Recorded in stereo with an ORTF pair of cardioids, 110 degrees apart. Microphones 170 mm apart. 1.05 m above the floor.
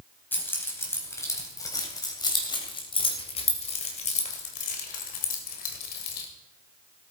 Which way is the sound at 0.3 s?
10° left.